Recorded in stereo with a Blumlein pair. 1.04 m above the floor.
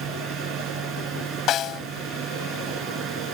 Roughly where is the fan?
Ahead right.